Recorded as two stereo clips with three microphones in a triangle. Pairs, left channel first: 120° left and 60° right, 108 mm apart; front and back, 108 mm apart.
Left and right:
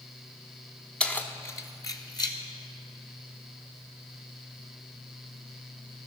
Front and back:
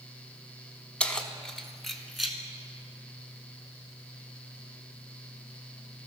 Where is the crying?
No crying in this recording.